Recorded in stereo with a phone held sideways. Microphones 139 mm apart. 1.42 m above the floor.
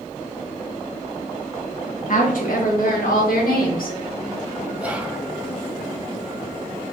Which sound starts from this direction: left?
A woman speaking, at 2.1 s.